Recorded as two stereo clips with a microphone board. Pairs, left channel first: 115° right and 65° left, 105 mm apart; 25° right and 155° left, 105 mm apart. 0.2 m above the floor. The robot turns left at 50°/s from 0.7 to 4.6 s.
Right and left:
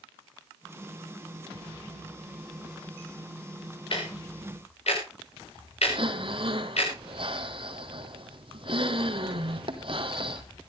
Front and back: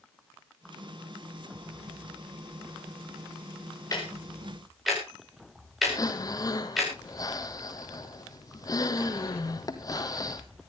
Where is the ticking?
75° right, 7 m; by 6.9 s 110° right, 7 m.